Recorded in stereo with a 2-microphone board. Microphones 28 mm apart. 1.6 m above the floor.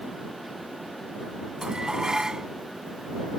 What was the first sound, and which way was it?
Dishes clattering, 25° right (ahead or behind).